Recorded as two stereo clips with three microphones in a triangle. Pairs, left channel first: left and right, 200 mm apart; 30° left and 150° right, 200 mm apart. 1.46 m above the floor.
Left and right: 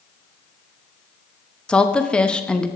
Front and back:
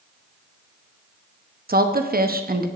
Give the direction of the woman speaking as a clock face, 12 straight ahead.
6 o'clock.